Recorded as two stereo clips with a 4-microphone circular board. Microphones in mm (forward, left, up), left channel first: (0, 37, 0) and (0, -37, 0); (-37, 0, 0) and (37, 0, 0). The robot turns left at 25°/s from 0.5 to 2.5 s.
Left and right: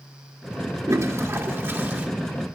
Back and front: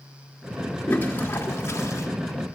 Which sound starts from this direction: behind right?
A toilet flushing, at 0.9 s.